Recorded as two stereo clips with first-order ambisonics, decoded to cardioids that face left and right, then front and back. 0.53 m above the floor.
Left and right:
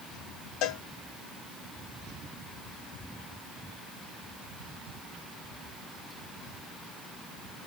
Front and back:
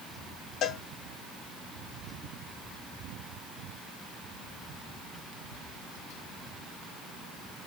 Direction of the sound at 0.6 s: 55° left.